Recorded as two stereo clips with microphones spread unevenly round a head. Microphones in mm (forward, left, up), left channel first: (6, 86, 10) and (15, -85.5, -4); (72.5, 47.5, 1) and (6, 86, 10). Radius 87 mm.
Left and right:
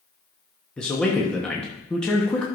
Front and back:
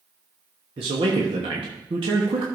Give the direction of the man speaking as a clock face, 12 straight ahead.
6 o'clock.